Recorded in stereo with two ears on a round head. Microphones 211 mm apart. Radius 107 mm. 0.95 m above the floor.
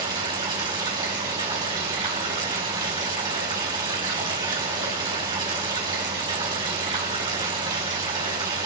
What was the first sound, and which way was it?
Running water, 20° right (ahead or behind).